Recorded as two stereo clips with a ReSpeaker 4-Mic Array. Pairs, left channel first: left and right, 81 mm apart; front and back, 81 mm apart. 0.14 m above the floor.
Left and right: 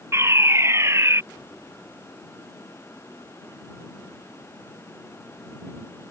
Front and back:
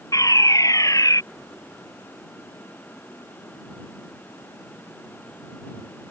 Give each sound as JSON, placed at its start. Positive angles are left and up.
{"t": 0.1, "sound": "a fire alarm", "azimuth_deg": -40}